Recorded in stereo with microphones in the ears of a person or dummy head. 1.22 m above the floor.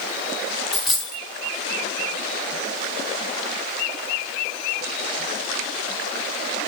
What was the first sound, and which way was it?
A dropped coin, centre (ahead or behind).